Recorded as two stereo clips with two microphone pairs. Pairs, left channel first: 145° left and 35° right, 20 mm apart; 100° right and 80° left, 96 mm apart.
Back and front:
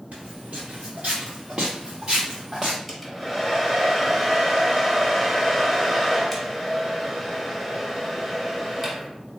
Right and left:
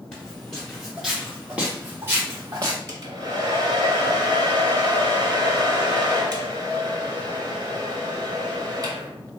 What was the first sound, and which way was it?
Footsteps, 20° right.